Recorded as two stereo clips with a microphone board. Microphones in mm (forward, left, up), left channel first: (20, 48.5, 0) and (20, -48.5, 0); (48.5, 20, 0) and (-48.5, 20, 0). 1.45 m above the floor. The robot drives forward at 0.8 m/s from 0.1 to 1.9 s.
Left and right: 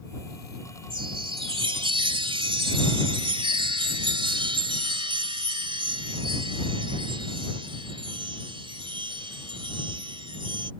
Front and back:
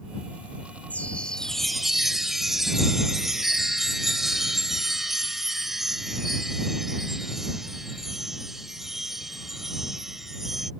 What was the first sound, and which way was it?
A chime, 75° right.